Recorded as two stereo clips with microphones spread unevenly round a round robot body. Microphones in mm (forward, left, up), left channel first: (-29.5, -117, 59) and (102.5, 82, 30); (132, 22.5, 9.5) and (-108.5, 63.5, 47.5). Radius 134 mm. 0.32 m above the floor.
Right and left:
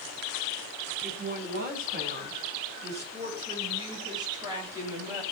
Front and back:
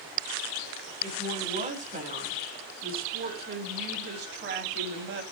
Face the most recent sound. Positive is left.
turn(degrees=135)